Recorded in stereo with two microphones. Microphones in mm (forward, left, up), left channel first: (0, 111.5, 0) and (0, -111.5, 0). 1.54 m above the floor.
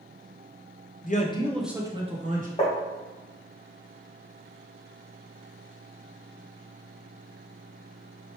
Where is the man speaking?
40° left (ahead or behind), 0.8 m; by 2.5 s 40° right (ahead or behind), 1.2 m.